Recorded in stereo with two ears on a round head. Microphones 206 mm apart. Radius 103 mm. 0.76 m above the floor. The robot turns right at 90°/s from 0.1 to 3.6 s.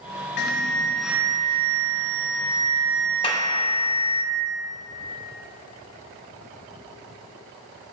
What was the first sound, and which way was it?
An alarm, 120° left.